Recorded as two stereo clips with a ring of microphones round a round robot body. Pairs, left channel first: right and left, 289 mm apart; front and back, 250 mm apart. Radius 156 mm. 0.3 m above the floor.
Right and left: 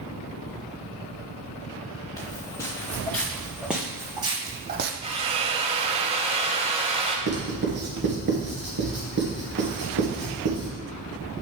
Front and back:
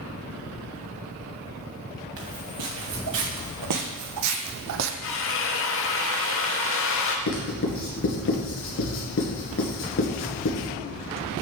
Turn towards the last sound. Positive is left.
turn(degrees=35)